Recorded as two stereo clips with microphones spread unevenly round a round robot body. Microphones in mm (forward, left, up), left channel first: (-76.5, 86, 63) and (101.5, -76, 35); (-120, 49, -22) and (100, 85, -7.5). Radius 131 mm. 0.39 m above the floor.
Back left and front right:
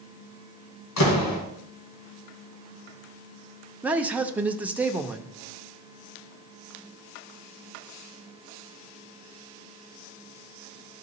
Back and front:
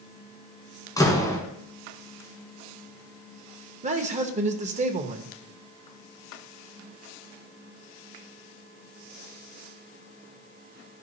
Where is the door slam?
115° left, 2 m.